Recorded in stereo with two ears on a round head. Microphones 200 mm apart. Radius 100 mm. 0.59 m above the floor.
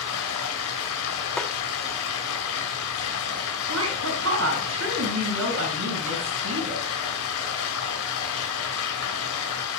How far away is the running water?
About 3 m.